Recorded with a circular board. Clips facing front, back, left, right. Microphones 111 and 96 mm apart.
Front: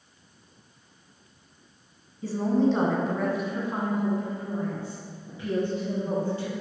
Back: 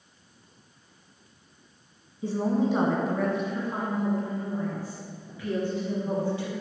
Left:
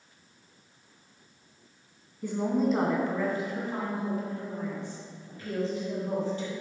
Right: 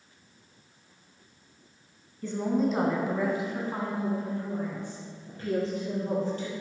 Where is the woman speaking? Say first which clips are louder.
Front 2 dB, even; 145° left, 1.5 m; by 6.5 s 55° right, 3.5 m.